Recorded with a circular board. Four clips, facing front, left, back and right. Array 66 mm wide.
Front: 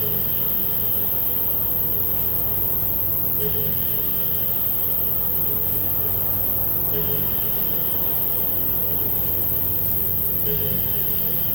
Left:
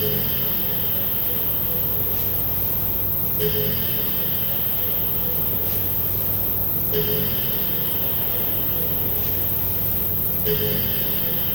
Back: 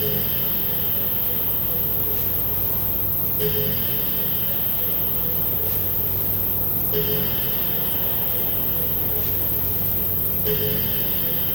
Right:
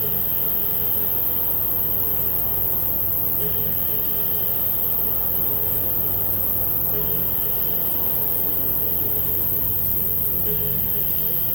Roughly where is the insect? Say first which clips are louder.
Left 6 dB, back 4 dB; behind right.